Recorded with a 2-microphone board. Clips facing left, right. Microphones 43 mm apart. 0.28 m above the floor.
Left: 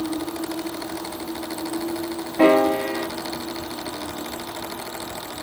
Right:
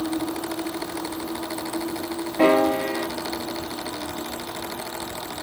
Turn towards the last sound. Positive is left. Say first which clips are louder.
# left 2 dB
turn(degrees=10)  # may be behind; listen again after turning